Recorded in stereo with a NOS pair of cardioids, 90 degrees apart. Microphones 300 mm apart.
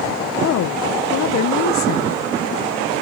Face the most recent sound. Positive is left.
turn(degrees=65)